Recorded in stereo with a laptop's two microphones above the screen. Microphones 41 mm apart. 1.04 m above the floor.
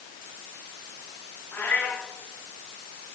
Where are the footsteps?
No footsteps in this recording.